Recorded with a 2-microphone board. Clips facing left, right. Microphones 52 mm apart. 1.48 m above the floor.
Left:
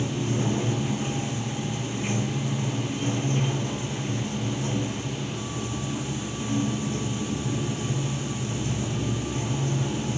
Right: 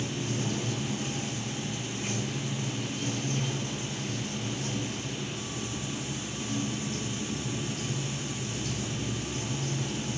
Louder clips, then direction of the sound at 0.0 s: Left 5 dB; 25° left (ahead or behind).